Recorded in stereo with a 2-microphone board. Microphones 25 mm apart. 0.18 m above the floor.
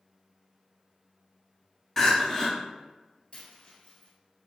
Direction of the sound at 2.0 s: 20° left (ahead or behind).